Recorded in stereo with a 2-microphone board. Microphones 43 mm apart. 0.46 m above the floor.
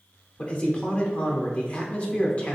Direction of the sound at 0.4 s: 30° left (ahead or behind).